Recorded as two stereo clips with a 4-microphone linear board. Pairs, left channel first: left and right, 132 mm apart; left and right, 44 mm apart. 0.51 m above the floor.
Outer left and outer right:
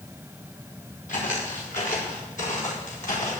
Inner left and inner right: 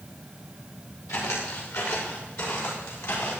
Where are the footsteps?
80° left, 5.5 m; by 3.4 s 75° left (ahead or behind), 7.5 m.